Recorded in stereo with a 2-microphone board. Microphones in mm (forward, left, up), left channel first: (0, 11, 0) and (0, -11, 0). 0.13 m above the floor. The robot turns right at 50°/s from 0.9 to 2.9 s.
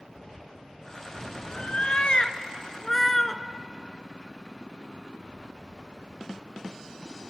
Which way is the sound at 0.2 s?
30° left (ahead or behind).